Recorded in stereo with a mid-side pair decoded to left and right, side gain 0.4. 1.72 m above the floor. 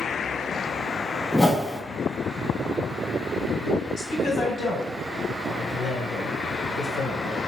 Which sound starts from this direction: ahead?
A whoosh, at 1.3 s.